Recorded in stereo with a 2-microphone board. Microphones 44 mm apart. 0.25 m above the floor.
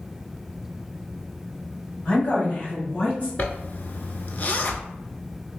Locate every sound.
2.0 s a woman speaking: 30° left (ahead or behind), 1.5 m
3.4 s a zipper: 45° left (ahead or behind), 0.5 m